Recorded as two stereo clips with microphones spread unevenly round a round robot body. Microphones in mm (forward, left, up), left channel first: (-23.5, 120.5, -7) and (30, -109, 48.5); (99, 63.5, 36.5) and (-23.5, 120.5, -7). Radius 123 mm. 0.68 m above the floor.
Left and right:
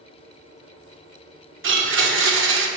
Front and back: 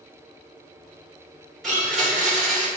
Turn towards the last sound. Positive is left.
turn(degrees=-120)